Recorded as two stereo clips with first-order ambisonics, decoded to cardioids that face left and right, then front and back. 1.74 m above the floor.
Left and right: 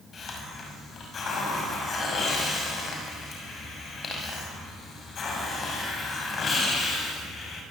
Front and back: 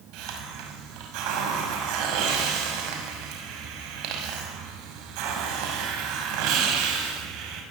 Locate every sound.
0.1 s a hiss: 155° left, 6 m